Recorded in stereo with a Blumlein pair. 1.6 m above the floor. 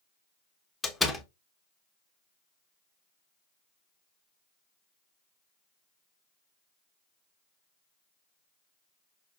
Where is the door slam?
10° left, 1.1 m.